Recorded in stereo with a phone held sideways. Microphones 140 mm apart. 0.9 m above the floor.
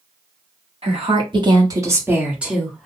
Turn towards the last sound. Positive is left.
turn(degrees=5)  # may be behind; listen again after turning